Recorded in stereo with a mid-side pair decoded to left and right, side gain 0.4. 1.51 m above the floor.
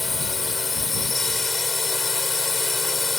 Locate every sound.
0.0 s a drone: 35° left